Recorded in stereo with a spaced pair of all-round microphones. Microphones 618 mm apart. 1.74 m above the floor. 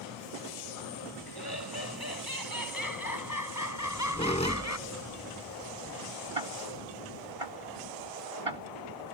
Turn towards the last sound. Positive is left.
turn(degrees=-60)  # may be behind; listen again after turning